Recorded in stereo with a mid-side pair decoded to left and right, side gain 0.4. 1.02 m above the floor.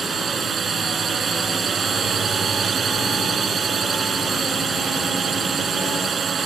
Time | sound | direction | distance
0.0 | a drone | 50° right | ?